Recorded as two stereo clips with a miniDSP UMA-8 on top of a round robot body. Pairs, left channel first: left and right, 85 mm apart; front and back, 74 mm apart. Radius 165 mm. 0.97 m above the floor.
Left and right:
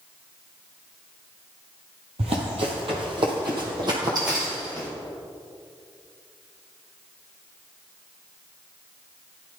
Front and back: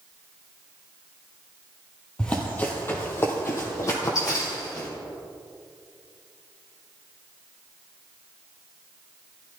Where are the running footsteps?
75° right, 1.6 m; by 4.9 s 40° right, 2.5 m.